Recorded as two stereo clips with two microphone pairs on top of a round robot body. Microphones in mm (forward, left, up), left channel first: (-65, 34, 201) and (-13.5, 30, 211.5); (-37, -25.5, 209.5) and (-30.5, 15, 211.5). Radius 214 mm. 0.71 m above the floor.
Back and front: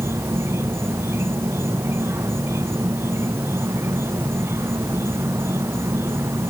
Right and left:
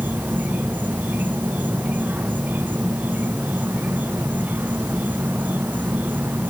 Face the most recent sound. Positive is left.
turn(degrees=35)